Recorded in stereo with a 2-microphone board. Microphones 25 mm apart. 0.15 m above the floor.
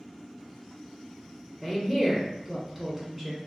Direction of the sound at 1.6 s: 15° right (ahead or behind).